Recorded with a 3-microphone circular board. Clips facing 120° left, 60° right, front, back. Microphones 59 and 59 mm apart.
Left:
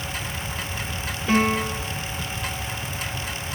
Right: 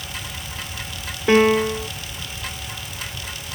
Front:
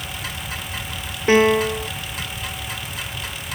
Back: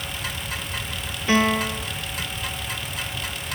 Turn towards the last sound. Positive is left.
turn(degrees=-45)